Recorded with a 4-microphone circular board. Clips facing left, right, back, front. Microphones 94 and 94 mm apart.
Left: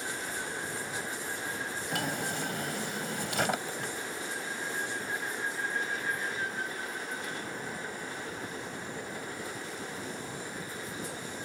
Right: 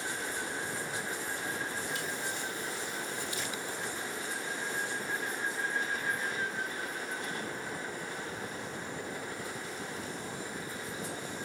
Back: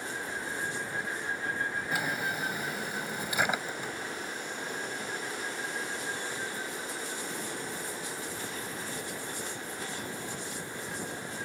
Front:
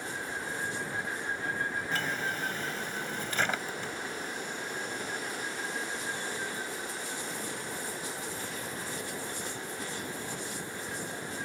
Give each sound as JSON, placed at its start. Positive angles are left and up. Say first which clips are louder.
{"t": 1.9, "sound": "a drawer", "louder": "left 3 dB, back 1 dB", "azimuth_deg": 100}